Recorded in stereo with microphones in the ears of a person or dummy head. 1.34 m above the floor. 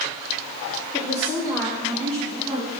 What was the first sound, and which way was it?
A woman speaking, 25° left (ahead or behind).